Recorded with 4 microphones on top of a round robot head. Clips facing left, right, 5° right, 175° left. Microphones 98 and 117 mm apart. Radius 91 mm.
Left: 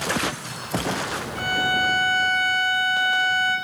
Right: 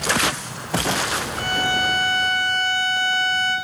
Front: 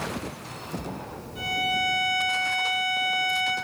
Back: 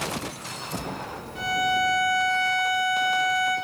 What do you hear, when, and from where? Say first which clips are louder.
1.4 s a violin: left 1 dB, back 4 dB; 145° right, 8.5 m